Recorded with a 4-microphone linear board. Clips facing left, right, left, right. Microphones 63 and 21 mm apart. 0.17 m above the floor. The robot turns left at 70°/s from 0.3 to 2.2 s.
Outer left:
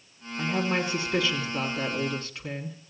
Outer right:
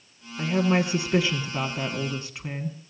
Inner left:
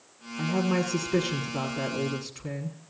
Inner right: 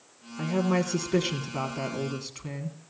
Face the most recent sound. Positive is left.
turn(degrees=-20)  # may be behind; listen again after turning